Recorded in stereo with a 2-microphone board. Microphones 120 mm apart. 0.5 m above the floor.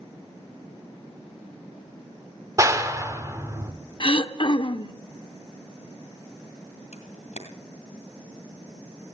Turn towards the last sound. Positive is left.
turn(degrees=75)  # may be behind; listen again after turning